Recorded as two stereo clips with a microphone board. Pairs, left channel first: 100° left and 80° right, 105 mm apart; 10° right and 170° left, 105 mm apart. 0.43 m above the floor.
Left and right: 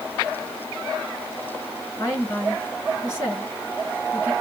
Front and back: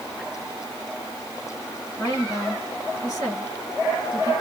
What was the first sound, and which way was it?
A woman speaking, 45° left.